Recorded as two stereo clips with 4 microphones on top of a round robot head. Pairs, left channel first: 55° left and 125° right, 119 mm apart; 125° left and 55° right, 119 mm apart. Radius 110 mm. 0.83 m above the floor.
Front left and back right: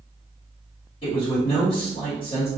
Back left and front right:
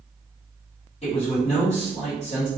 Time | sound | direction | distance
1.0 | a man speaking | 100° left | 1.7 m